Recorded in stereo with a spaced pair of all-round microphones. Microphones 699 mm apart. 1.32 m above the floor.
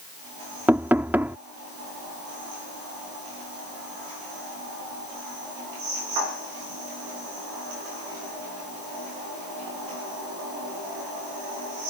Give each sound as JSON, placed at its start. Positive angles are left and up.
{"t": 0.7, "sound": "knocking", "side_deg": -5}